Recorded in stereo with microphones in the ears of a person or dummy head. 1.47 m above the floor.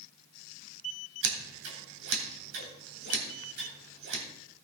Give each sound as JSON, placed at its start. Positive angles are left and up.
{"t": 1.2, "sound": "scissors", "side_deg": -70, "distance_m": 3.0}